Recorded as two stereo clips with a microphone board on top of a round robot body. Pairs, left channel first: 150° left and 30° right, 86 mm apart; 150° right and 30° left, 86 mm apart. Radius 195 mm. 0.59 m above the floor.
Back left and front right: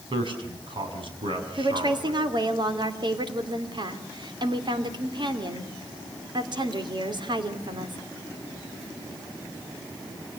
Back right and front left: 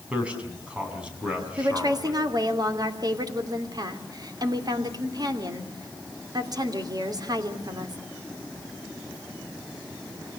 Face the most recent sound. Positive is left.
turn(degrees=-5)